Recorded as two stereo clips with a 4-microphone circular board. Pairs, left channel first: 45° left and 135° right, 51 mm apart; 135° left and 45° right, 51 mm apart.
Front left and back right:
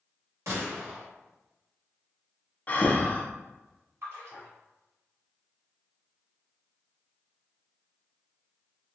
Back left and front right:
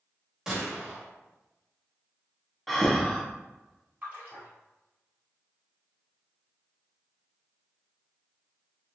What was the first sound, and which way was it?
A gunshot, 120° right.